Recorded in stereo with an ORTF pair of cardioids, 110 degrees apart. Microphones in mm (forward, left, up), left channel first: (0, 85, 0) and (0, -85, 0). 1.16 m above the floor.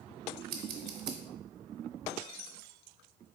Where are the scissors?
65° right, 1.0 m.